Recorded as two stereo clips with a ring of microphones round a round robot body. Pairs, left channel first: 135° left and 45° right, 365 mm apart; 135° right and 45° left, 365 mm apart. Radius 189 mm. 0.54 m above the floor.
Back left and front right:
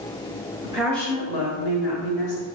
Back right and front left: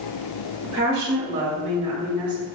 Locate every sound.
0.6 s a woman speaking: 25° left, 1.4 m; by 2.5 s 130° left, 2 m